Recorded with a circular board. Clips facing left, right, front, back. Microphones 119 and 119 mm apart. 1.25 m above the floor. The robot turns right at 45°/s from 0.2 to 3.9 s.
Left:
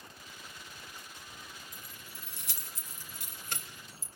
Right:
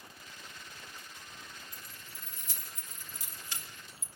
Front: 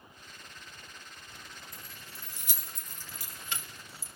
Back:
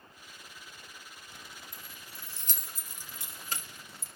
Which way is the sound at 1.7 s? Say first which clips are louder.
Left 1 dB, even; 45° left.